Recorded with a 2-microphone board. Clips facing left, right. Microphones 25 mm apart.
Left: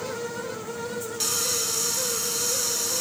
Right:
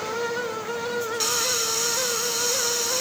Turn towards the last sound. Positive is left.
turn(degrees=-20)  # may be behind; listen again after turning